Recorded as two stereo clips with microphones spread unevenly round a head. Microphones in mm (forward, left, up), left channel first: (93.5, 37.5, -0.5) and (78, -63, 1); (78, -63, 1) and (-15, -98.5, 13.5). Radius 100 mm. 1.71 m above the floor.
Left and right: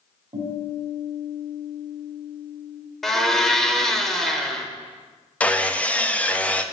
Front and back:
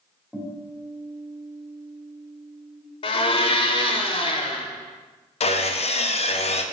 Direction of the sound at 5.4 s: 5° left.